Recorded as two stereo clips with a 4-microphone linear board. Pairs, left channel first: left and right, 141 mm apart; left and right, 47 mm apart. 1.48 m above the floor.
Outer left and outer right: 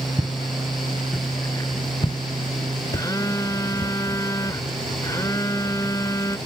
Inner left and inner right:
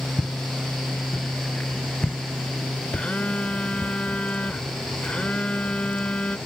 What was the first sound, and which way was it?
Footsteps, 20° right (ahead or behind).